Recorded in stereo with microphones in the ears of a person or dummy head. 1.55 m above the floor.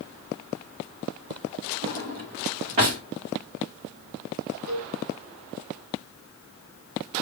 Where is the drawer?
35° right (ahead or behind), 1.1 m.